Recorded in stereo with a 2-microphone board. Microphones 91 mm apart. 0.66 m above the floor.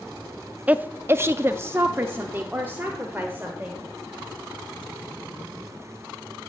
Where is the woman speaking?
15° right (ahead or behind), 0.5 m; by 3.8 s 20° right (ahead or behind), 2 m.